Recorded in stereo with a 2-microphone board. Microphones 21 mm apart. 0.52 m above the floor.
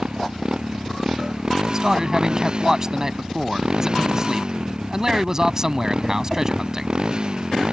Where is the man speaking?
25° right (ahead or behind).